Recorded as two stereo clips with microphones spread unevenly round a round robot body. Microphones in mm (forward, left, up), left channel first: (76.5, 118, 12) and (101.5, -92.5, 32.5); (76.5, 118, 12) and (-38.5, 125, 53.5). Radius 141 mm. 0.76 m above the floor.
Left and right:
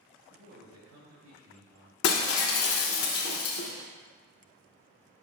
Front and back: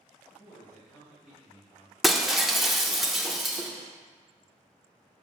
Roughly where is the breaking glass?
Left.